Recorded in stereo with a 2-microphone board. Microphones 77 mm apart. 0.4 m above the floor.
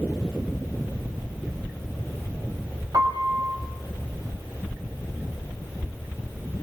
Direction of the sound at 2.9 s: 60° right (ahead or behind).